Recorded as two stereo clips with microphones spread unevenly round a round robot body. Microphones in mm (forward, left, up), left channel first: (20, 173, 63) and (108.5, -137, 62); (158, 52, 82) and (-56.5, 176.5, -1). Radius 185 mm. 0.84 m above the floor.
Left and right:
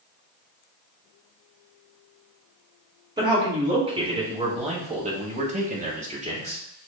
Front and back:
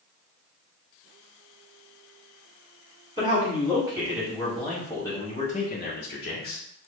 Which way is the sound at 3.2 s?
150° right.